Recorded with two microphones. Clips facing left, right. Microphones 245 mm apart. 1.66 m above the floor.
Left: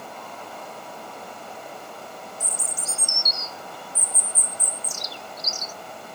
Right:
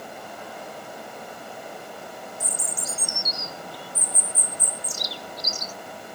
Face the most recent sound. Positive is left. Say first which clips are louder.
# right 1 dB
turn(degrees=-35)  # may be behind; listen again after turning